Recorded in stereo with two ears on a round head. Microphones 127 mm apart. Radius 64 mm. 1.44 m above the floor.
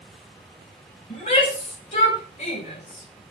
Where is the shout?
50° left (ahead or behind), 6.5 m.